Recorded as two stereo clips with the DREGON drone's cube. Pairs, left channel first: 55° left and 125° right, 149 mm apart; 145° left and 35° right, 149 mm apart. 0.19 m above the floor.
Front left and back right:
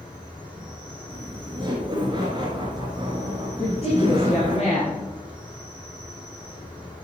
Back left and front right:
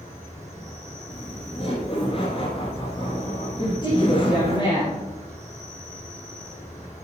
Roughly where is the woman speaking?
Left.